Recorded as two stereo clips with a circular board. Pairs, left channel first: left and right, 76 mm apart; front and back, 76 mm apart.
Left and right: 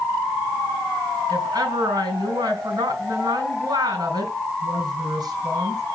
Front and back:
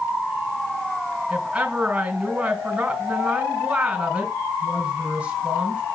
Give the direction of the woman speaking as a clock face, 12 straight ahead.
3 o'clock.